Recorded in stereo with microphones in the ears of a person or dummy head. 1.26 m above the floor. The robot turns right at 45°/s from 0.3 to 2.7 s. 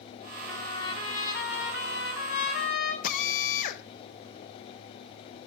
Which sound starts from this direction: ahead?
A trumpet, at 0.5 s.